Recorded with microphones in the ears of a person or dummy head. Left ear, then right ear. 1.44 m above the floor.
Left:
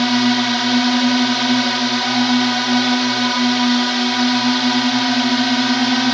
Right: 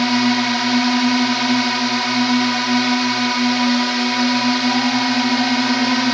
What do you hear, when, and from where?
0.0 s a drone: 10° right (ahead or behind)